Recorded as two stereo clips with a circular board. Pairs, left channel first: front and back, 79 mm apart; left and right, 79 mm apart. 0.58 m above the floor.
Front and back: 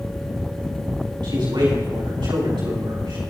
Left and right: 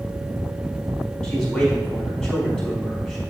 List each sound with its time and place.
1.2 s a man speaking: 175° left, 4.5 m